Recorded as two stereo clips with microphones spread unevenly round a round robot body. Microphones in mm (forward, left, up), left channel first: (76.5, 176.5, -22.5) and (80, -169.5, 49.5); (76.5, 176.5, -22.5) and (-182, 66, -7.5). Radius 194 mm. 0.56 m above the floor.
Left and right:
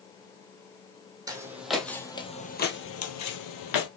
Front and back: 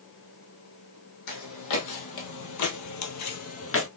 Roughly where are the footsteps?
Ahead.